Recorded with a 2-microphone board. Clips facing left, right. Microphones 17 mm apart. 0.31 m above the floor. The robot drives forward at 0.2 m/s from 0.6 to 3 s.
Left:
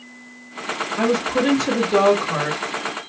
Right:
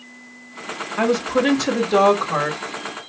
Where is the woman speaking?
20° right (ahead or behind), 1.0 m.